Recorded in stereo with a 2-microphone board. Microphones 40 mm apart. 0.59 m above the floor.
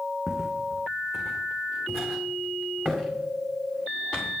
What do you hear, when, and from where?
0.3 s footsteps: 10° right (ahead or behind), 1.3 m; by 4.3 s 15° left (ahead or behind), 3.5 m